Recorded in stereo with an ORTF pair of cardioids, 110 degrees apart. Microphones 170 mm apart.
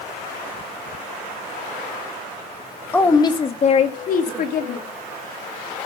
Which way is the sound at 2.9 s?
10° left.